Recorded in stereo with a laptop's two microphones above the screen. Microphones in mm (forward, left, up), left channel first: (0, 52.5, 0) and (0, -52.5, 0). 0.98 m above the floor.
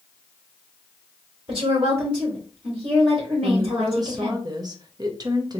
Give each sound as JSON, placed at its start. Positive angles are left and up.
{"t": 1.5, "sound": "a woman speaking", "side_deg": -55, "distance_m": 3.0}
{"t": 3.4, "sound": "a woman speaking", "side_deg": -35, "distance_m": 0.7}